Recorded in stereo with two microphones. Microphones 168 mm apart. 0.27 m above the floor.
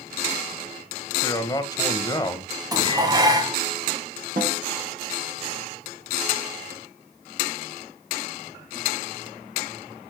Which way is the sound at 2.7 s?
20° right (ahead or behind).